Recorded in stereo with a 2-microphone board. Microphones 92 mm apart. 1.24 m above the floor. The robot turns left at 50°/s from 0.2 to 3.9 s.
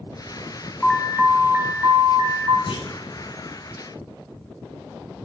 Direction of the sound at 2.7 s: 75° left (ahead or behind).